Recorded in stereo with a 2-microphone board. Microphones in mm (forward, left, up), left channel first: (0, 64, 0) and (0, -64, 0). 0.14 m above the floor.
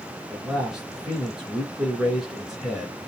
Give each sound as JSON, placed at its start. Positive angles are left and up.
{"t": 0.3, "sound": "a man speaking", "side_deg": -5, "distance_m": 1.5}